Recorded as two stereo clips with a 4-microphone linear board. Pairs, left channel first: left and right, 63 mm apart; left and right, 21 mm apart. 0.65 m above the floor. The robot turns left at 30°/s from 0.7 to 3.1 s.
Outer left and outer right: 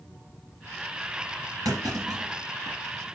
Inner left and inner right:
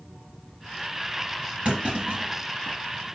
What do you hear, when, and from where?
1.6 s a clunk: 70° right (ahead or behind), 3.5 m; by 2.8 s 75° right (ahead or behind), 3.5 m